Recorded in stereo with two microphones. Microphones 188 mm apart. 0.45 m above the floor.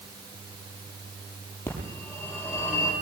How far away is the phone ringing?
About 8.5 m.